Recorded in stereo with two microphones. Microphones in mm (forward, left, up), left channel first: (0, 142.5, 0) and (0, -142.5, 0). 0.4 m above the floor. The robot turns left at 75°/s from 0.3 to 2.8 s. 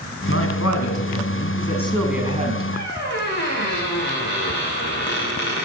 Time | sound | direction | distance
0.3 | a man speaking | 135° left | 3.5 m
2.7 | a squeak | 35° left (ahead or behind) | 5.5 m